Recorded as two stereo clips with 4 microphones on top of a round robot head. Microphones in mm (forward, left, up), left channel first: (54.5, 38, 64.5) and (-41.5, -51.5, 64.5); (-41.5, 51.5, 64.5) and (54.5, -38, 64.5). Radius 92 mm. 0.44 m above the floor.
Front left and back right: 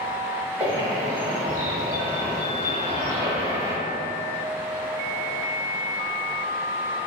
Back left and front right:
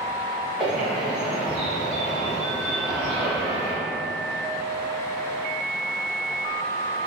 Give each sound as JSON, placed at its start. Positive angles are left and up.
{"t": 0.6, "sound": "a bird", "azimuth_deg": -115, "distance_m": 1.2}